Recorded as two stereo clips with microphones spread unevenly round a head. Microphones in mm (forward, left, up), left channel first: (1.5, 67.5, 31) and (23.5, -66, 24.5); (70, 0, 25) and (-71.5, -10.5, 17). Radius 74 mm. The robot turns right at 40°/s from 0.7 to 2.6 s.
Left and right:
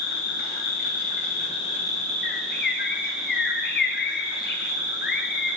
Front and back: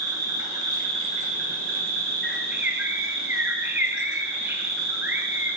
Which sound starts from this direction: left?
A bird, at 2.2 s.